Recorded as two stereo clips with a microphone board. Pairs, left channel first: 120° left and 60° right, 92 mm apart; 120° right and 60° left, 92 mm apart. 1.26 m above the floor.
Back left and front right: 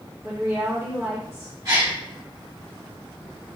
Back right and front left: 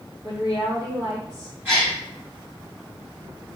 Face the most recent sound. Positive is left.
turn(degrees=-15)